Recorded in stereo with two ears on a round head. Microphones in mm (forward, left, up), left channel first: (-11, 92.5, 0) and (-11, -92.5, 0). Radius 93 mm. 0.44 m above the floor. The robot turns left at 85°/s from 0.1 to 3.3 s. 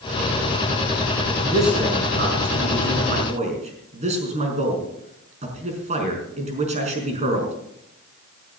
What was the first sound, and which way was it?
A man speaking, 10° left (ahead or behind).